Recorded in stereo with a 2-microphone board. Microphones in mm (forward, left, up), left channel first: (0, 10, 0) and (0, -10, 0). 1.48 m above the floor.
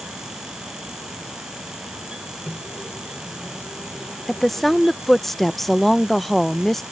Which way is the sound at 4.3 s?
15° left (ahead or behind).